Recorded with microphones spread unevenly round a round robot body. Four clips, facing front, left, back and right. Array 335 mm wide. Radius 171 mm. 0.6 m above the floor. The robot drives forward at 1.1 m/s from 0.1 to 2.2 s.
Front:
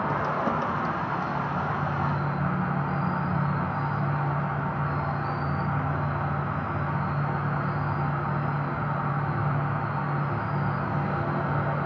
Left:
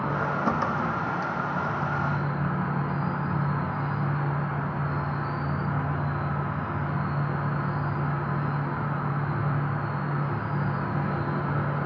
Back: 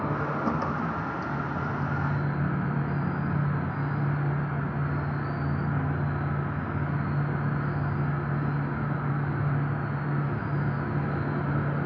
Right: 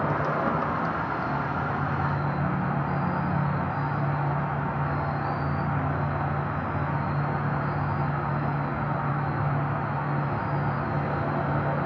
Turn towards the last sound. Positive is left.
turn(degrees=-135)